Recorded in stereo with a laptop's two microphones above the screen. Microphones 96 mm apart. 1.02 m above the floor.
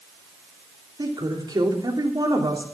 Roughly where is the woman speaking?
Right.